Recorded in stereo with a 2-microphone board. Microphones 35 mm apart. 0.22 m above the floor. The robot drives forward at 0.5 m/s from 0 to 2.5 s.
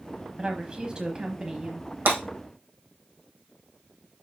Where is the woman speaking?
25° right (ahead or behind), 1.0 m; by 1.9 s 20° right (ahead or behind), 1.2 m.